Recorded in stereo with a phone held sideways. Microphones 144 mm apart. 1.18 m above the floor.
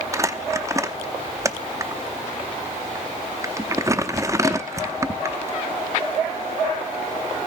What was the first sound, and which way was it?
Crumpling, 20° right (ahead or behind).